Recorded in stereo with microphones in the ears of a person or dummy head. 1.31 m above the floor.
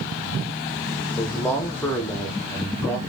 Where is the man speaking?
10° left (ahead or behind), 0.7 m.